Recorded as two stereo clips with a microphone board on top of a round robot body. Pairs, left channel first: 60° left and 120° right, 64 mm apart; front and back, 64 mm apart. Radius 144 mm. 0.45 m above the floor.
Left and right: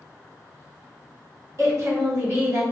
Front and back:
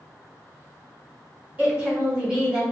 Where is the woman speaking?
125° right, 2.0 m; by 2.6 s 105° right, 1.6 m.